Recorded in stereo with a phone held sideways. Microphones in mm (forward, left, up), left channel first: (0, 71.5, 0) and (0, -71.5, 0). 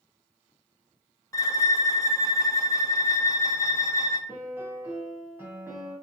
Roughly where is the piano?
Centre.